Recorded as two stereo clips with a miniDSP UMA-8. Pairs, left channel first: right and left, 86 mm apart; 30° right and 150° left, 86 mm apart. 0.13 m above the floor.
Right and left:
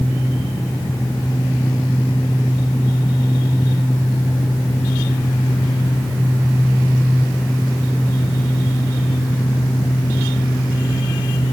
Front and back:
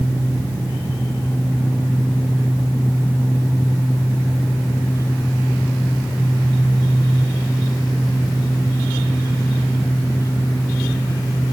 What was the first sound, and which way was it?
Only background noise.